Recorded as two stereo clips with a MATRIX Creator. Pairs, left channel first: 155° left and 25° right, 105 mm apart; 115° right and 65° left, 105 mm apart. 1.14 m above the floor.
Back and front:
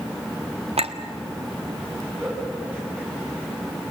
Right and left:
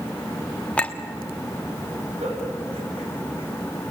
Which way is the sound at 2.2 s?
55° left.